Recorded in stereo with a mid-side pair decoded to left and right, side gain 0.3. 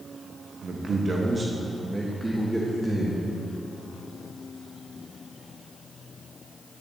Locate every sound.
0.6 s a man speaking: 65° right, 1.0 m; by 3.2 s straight ahead, 1.5 m